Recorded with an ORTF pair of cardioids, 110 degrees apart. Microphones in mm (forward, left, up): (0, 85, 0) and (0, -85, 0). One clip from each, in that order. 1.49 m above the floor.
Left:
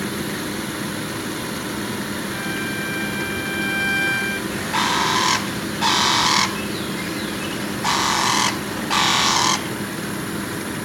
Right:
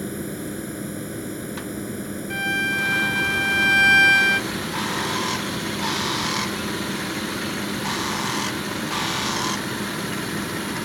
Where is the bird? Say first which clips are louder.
Left 6 dB; 40° left.